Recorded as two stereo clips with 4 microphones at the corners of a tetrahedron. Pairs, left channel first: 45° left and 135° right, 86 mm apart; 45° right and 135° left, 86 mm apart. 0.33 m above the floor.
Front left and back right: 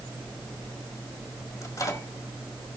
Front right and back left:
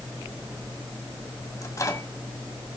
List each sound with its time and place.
1.6 s a microwave: straight ahead, 1.5 m